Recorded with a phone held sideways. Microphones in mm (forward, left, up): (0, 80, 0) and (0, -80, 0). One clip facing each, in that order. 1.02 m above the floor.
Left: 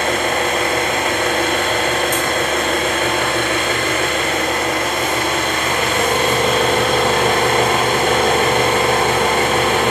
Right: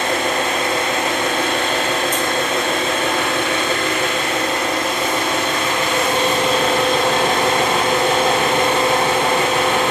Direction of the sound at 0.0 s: 50° left (ahead or behind).